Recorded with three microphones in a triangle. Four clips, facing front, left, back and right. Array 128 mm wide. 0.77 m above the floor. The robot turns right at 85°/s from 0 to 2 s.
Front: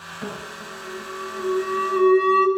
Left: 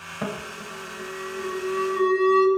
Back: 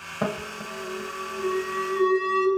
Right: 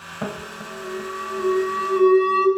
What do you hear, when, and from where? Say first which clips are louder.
0.2 s an alarm: right 1 dB, back 5 dB; 175° right, 2 m; by 2.5 s 25° right, 2 m